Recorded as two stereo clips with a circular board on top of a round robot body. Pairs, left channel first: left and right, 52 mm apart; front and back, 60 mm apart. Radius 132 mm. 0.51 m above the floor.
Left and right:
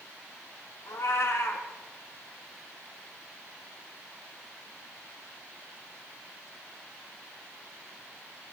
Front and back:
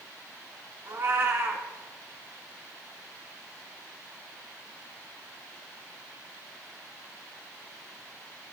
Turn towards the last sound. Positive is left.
turn(degrees=125)